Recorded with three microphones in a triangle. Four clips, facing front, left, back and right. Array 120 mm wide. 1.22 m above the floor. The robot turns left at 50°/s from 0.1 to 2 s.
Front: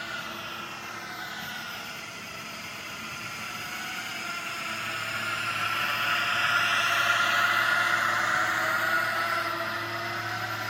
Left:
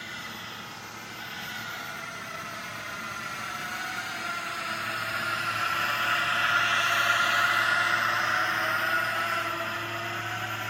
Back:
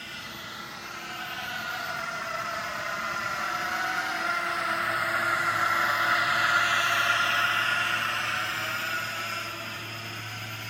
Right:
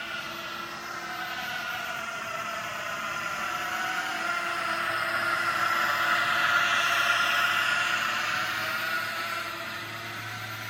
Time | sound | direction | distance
0.0 | a drone | 50° right | ?